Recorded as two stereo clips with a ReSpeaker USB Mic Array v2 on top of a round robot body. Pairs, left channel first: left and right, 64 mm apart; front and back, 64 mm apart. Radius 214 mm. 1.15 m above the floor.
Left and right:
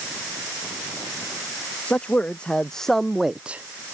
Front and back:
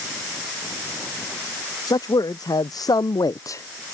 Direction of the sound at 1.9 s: 15° left.